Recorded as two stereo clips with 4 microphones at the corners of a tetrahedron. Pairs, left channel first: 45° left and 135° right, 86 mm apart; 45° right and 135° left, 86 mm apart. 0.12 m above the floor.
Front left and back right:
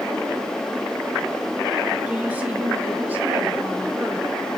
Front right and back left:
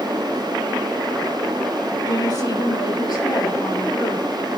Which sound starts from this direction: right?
A woman speaking, at 2.1 s.